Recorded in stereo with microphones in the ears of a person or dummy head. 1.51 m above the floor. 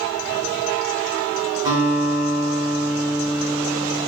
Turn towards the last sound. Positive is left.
turn(degrees=-25)  # may be behind; listen again after turning